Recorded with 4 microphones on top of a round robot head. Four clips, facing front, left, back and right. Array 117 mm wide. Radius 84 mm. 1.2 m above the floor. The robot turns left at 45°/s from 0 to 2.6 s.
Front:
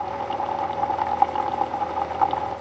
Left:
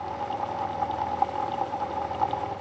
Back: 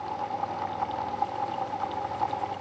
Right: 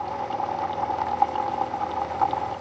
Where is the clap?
No clap in this recording.